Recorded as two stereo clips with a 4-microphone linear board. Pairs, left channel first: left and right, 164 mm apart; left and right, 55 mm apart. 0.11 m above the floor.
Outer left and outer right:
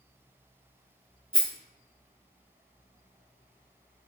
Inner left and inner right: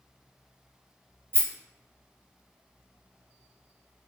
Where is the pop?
I don't hear a pop.